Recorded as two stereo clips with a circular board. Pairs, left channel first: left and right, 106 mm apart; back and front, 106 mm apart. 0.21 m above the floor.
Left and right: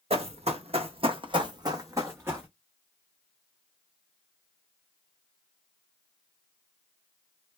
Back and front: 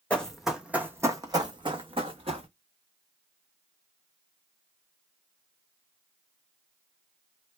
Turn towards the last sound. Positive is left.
turn(degrees=-20)